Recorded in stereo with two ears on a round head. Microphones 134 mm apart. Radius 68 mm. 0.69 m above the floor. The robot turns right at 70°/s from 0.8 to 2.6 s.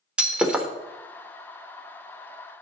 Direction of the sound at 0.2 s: 5° right (ahead or behind).